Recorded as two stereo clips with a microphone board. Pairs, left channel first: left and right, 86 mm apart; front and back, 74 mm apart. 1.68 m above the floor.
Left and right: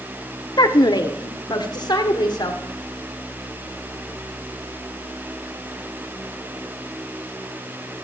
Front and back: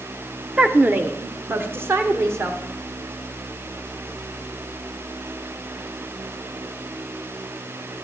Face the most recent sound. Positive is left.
turn(degrees=125)